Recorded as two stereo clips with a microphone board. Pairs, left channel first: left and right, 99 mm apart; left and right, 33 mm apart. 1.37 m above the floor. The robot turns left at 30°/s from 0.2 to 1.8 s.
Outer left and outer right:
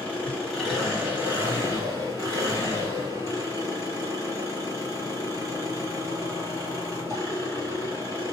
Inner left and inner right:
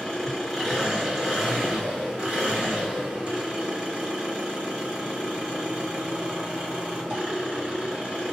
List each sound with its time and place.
0.0 s an engine running: 10° left, 1.6 m; by 8.3 s 35° right, 1.6 m